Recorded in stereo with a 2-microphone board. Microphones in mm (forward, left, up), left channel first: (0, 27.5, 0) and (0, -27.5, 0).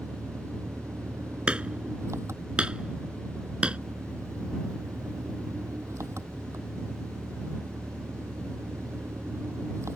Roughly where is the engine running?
Right.